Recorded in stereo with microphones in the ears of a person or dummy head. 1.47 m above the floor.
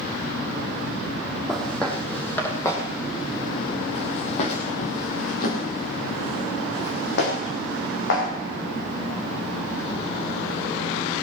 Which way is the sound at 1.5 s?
Centre (ahead or behind).